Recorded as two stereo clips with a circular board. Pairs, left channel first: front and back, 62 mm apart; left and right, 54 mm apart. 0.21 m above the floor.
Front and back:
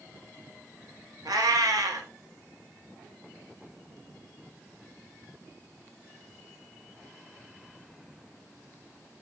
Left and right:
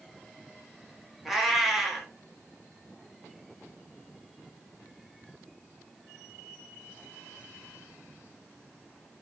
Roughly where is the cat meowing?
Behind.